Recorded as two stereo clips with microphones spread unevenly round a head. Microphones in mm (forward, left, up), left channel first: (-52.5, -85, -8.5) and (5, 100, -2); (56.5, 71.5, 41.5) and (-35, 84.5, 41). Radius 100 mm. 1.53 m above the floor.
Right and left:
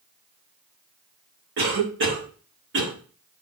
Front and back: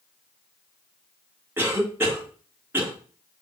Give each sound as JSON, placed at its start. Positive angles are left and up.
{"t": 1.6, "sound": "a cough", "azimuth_deg": 105, "distance_m": 5.5}